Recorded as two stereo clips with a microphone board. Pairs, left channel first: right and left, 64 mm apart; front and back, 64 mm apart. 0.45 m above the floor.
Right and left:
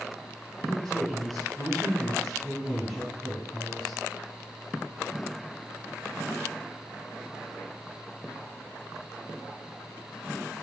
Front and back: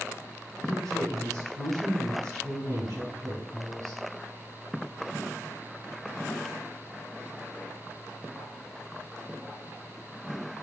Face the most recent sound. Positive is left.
turn(degrees=-175)